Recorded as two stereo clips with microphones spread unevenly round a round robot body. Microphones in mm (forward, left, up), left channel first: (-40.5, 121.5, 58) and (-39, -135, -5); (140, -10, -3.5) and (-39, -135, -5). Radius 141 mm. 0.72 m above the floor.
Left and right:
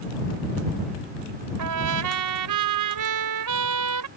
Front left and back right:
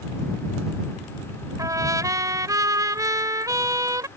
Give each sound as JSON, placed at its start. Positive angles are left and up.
{"t": 1.6, "sound": "a trumpet", "azimuth_deg": -70}